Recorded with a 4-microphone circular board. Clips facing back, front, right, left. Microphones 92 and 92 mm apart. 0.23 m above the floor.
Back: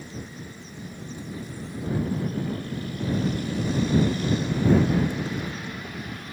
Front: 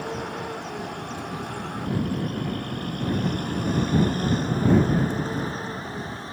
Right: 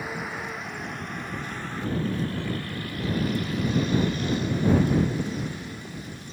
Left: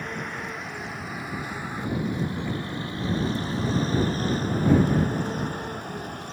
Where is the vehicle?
5° right; by 6.3 s 60° left.